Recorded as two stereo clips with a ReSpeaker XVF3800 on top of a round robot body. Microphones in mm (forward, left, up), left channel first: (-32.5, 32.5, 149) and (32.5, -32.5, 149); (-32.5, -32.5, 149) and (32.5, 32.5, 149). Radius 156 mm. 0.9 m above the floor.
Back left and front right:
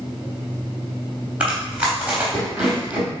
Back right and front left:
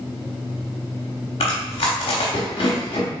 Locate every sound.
1.4 s chewing: 120° right, 0.6 m